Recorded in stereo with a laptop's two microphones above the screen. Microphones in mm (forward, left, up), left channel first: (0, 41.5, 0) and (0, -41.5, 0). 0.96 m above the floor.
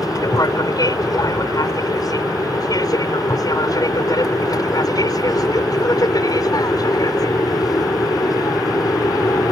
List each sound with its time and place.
0.0 s an aircraft: 50° left (ahead or behind)